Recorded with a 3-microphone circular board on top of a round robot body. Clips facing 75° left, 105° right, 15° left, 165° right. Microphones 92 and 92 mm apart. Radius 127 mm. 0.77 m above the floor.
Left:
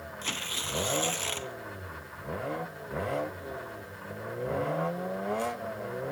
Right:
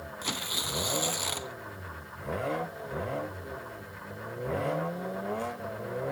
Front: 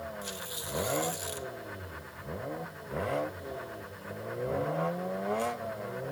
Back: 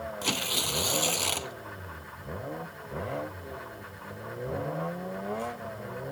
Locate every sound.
0.2 s tearing paper: 175° left